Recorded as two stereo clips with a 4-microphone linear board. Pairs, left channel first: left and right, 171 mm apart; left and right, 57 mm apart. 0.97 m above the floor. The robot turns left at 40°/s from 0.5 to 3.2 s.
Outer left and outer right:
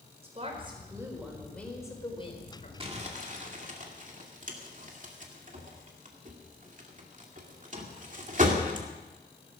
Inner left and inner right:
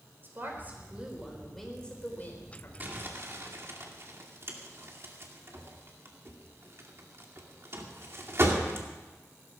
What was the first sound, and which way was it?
A woman speaking, 145° right.